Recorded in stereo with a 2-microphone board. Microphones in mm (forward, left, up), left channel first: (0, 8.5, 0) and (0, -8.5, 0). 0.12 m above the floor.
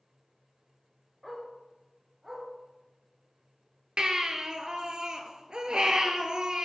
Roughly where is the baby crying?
Right.